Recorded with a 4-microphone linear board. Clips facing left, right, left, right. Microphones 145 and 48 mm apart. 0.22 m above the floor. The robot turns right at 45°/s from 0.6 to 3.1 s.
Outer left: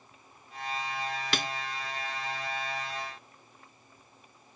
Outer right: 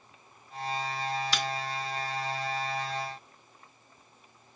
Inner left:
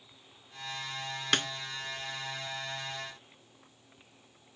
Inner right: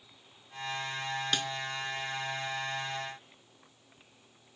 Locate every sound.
1.3 s a snare drum: 50° left (ahead or behind), 0.5 m; by 1.5 s 45° left (ahead or behind), 0.5 m